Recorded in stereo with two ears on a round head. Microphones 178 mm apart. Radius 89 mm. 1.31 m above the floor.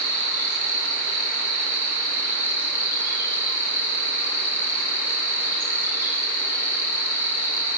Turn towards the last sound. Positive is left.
turn(degrees=-10)  # may be behind; listen again after turning